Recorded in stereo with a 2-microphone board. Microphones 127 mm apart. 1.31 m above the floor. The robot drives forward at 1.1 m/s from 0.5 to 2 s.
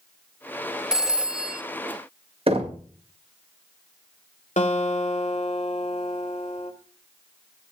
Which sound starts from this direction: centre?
A phone ringing, at 0.9 s.